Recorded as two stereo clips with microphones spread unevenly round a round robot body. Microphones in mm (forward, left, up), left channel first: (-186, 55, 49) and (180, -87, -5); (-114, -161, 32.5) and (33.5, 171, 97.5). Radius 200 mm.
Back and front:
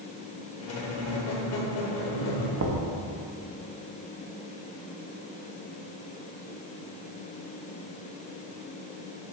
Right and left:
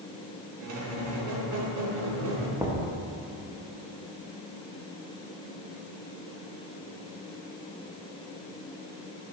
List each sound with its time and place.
0.6 s a squeak: 105° left, 1.1 m
2.6 s knocking: 25° right, 0.7 m